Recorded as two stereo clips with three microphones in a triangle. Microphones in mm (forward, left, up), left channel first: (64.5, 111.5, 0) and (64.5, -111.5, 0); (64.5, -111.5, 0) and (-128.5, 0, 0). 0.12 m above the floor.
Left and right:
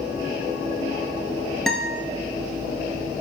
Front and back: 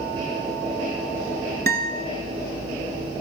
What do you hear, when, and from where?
1.7 s a guitar: straight behind, 0.7 m